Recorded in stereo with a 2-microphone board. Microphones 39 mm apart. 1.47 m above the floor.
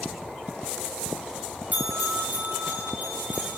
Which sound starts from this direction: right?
A bell, at 1.7 s.